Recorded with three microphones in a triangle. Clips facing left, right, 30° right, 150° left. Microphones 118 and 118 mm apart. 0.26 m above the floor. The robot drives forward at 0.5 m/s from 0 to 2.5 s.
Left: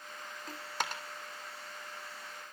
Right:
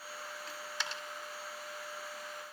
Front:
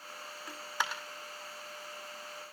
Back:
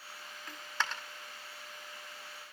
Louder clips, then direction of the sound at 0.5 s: Left 6 dB, front 1 dB; 45° left.